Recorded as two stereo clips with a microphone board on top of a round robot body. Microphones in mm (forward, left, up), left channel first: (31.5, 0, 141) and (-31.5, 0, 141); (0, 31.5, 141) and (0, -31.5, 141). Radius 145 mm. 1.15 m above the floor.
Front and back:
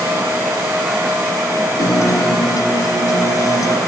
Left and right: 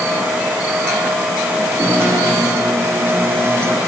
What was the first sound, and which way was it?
A guitar, 35° right.